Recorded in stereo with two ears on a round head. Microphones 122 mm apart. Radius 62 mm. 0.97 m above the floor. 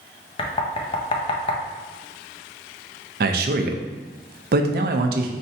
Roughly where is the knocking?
Left.